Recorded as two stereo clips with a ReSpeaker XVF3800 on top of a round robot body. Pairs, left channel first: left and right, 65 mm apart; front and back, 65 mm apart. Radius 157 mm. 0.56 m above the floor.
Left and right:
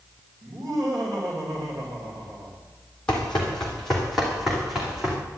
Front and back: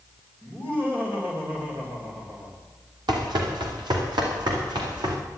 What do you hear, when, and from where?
0.4 s laughter: 120° right, 3 m
3.1 s running footsteps: 170° left, 1.8 m; by 5.2 s 175° right, 3 m